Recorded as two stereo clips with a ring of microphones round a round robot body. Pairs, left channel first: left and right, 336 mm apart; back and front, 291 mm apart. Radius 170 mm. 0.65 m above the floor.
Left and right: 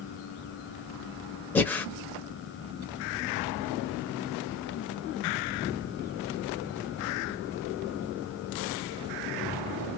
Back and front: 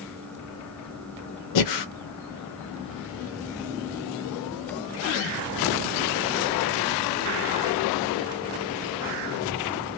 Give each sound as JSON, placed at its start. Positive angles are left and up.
{"t": 1.6, "sound": "breathing", "azimuth_deg": 175, "distance_m": 0.6}